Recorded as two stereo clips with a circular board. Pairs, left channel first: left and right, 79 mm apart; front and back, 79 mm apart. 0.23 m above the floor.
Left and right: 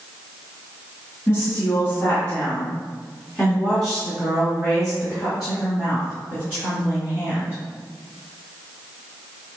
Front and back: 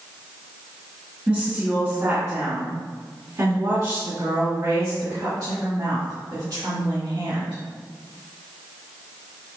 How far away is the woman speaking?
About 1.9 m.